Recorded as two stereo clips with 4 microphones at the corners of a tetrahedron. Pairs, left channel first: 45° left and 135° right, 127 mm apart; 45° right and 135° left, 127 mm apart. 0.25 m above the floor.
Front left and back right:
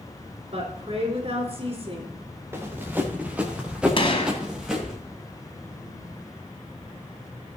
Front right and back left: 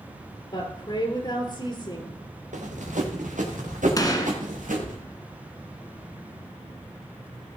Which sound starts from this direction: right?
A woman speaking, at 0.5 s.